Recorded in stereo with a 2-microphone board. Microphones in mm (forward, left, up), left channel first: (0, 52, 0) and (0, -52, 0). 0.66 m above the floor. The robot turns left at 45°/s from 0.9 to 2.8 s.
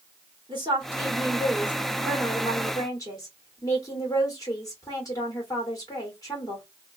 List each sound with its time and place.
0.5 s a woman speaking: 130° right, 1.8 m; by 6.7 s 145° left, 1.8 m